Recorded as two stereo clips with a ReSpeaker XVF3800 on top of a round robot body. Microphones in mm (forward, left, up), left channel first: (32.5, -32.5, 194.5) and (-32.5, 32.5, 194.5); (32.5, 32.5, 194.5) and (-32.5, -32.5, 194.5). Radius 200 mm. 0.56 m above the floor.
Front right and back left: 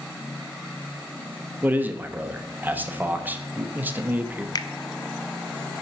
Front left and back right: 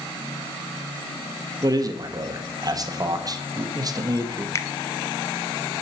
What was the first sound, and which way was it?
A man speaking, 160° right.